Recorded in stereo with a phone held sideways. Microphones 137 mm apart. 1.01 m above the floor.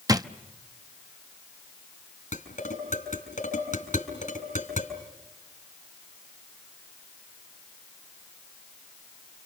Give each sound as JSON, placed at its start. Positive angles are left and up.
{"t": 0.1, "sound": "a drawer", "side_deg": -25, "distance_m": 0.7}
{"t": 2.3, "sound": "dishes clattering", "side_deg": 70, "distance_m": 4.0}